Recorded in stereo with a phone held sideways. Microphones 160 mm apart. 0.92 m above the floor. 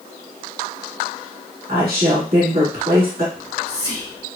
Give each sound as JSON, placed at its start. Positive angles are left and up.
{"t": 1.7, "sound": "a woman speaking", "side_deg": -70, "distance_m": 1.6}
{"t": 3.4, "sound": "whispering", "side_deg": 45, "distance_m": 1.4}